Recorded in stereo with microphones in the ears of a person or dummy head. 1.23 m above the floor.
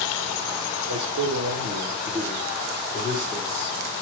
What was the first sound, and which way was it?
A man speaking, 85° right.